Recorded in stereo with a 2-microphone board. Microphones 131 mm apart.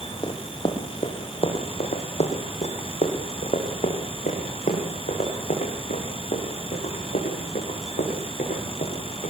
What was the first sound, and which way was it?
Running footsteps, 35° left (ahead or behind).